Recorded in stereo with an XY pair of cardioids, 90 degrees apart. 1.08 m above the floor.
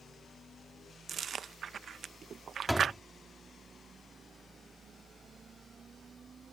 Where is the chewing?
55° right.